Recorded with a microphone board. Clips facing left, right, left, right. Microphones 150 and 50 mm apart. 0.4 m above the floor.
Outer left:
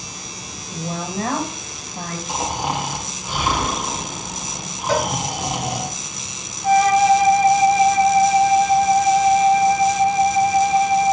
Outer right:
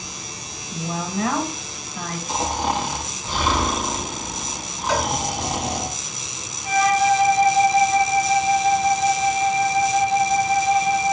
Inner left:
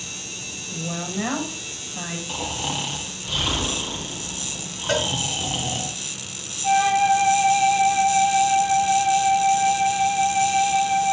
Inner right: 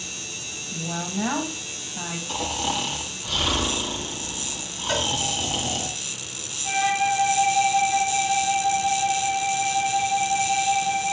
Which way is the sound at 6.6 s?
55° left (ahead or behind).